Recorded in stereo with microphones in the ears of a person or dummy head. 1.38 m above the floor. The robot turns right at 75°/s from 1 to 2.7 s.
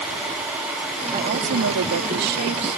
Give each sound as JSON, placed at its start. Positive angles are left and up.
{"t": 1.1, "sound": "a woman speaking", "azimuth_deg": -150}